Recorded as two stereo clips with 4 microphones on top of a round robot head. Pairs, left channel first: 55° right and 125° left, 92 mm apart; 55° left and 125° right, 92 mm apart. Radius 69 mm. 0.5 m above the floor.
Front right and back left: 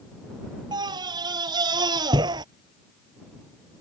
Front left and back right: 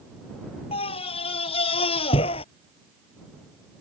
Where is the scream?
80° left.